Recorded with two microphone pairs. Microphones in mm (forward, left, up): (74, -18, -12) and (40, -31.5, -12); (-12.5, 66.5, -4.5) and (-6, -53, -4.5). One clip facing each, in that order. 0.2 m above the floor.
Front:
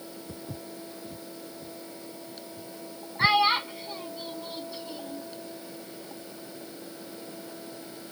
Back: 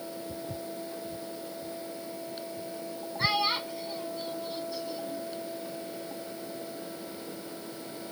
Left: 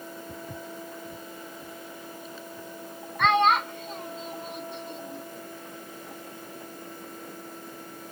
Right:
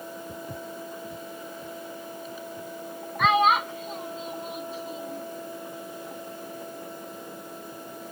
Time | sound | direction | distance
0.3 | footsteps | straight ahead | ?
3.2 | a child speaking | 5° right | ?